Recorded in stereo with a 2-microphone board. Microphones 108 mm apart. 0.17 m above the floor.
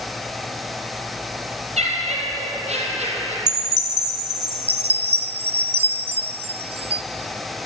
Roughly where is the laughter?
Right.